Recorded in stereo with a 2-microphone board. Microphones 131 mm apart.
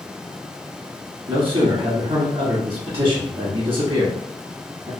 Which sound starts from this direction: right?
A man speaking, at 1.3 s.